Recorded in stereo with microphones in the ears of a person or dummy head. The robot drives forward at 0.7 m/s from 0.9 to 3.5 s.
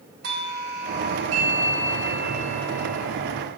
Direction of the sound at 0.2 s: 60° right (ahead or behind).